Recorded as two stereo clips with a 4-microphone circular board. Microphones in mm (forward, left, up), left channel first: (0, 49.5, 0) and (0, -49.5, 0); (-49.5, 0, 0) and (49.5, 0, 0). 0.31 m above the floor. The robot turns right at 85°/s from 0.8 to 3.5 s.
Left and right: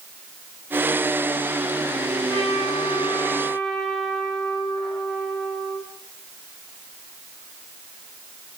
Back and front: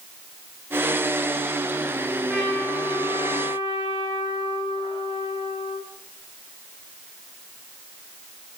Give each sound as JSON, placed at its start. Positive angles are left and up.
{"t": 2.3, "sound": "a trumpet", "azimuth_deg": 75, "distance_m": 5.5}